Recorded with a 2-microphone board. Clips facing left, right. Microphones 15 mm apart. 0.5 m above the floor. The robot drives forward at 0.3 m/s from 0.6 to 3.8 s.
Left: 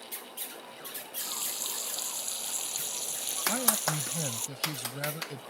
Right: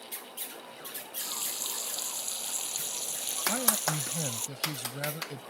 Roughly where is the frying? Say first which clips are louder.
Even; centre.